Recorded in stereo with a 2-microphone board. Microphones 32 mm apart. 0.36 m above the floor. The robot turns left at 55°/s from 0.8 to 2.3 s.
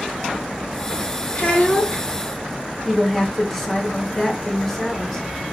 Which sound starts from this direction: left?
A child speaking, at 1.4 s.